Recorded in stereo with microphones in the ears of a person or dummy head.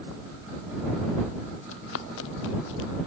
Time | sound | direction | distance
1.7 | running footsteps | 80° left | ?